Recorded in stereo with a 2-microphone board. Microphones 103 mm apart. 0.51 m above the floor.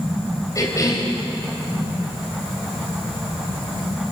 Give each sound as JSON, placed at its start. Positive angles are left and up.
{"t": 0.6, "sound": "a cough", "side_deg": 35, "distance_m": 3.0}